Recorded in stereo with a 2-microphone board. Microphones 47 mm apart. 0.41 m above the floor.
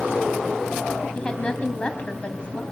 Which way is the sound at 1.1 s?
25° left (ahead or behind).